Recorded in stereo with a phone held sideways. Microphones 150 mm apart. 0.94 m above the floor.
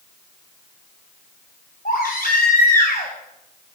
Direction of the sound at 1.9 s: 75° left (ahead or behind).